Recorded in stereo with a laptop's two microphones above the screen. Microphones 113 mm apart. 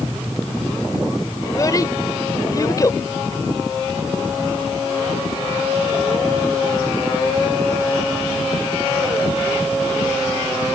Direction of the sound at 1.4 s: 30° left (ahead or behind).